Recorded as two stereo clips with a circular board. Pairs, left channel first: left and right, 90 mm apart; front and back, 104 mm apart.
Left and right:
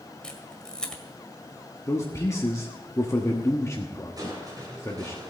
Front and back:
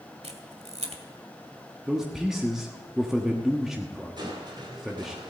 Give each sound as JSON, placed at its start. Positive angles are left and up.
{"t": 0.2, "sound": "a camera shutter", "azimuth_deg": 170, "distance_m": 1.6}
{"t": 1.9, "sound": "a man speaking", "azimuth_deg": 100, "distance_m": 1.2}
{"t": 4.2, "sound": "crushing", "azimuth_deg": -135, "distance_m": 3.5}